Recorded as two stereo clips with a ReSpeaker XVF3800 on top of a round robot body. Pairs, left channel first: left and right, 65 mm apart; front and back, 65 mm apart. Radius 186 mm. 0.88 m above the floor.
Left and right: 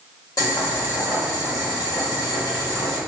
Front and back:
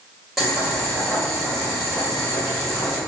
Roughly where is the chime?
I don't hear a chime.